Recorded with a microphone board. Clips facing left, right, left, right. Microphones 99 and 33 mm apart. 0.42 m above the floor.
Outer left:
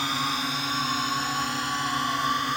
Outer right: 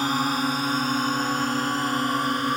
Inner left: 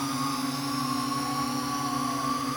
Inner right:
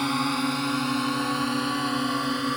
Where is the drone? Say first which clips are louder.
Outer right 5 dB, inner right 4 dB; 45° right (ahead or behind).